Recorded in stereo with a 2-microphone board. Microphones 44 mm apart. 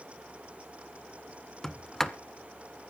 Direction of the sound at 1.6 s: 10° left (ahead or behind).